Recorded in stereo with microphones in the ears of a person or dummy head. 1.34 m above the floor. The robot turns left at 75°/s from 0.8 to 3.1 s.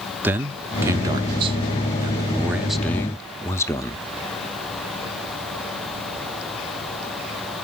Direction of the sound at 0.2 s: 15° right (ahead or behind).